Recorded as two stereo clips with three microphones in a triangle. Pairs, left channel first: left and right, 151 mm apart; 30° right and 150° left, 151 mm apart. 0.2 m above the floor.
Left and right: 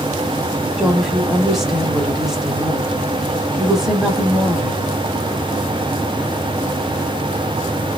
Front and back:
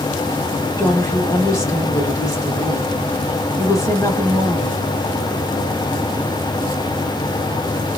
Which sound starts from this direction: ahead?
A woman speaking, at 0.8 s.